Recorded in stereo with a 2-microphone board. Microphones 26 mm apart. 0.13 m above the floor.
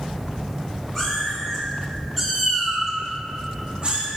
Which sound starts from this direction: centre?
A cat meowing, at 0.9 s.